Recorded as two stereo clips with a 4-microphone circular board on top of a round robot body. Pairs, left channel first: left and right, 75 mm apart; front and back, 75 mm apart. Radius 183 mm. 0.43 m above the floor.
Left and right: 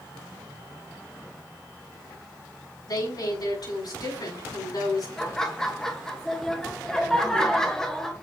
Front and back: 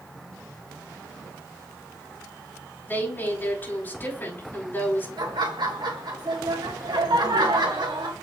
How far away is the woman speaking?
About 5.5 m.